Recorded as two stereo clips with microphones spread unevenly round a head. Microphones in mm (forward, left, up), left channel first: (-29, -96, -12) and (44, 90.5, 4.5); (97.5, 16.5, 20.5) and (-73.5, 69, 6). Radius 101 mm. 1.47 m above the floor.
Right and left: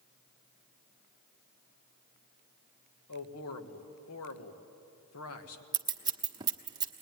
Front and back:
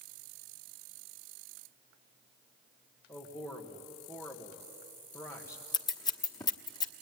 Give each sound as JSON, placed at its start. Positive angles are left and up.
{"t": 3.1, "sound": "a man speaking", "azimuth_deg": -95, "distance_m": 1.7}
{"t": 5.7, "sound": "scissors", "azimuth_deg": 25, "distance_m": 1.1}